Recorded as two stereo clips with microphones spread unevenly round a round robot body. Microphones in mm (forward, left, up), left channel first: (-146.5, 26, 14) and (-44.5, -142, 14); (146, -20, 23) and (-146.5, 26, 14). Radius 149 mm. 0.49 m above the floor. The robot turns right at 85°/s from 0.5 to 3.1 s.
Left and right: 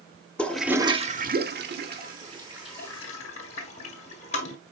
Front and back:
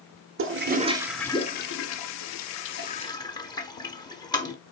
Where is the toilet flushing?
155° right, 1.0 m; by 4.5 s 65° left, 1.0 m.